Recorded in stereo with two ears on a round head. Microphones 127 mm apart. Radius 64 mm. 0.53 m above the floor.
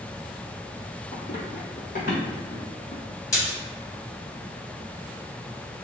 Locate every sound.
1.1 s running footsteps: 40° left (ahead or behind), 0.6 m; by 3.0 s 70° left (ahead or behind), 2.0 m
3.3 s a splash: 25° left (ahead or behind), 1.2 m